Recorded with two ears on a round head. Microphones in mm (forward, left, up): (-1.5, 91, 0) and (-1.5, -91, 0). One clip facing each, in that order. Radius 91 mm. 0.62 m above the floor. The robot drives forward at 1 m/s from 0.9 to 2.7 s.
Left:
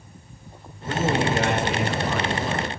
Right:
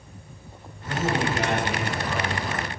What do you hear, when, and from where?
0.9 s a man speaking: 65° left (ahead or behind), 2.5 m; by 2.7 s 45° left (ahead or behind), 3.5 m